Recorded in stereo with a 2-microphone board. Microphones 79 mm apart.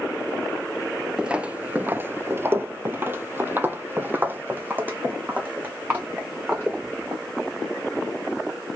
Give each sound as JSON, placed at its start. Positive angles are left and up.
{"t": 1.2, "sound": "footsteps", "side_deg": -10, "distance_m": 0.6}